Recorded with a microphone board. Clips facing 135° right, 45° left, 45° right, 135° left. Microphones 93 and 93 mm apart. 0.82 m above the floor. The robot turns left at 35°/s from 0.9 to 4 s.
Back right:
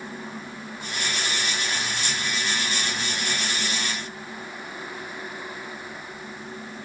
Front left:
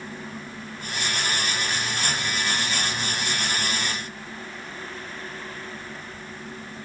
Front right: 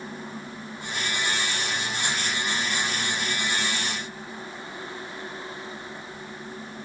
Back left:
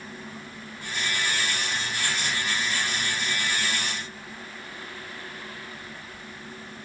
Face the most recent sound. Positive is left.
No sound to turn to.